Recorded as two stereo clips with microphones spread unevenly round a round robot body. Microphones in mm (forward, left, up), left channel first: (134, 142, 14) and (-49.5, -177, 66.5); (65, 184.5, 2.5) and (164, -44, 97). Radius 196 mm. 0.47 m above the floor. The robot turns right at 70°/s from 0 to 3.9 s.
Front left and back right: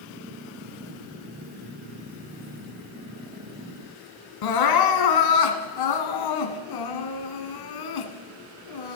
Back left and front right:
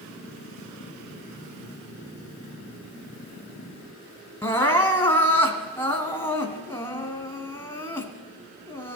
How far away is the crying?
About 1.4 m.